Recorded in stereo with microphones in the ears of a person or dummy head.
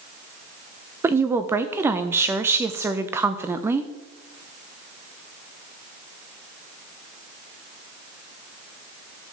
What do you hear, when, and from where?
1.0 s a woman speaking: 15° right (ahead or behind), 0.7 m